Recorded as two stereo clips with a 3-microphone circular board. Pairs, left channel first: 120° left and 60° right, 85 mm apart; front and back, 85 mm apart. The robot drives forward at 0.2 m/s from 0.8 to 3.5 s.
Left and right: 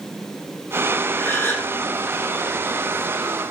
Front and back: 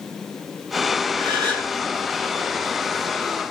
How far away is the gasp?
About 3 m.